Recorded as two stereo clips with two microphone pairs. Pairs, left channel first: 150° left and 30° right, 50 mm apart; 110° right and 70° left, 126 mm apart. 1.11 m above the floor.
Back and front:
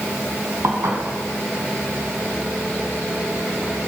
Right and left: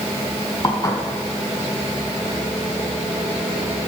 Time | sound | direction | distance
0.6 | dishes clattering | 50° right | 5.5 m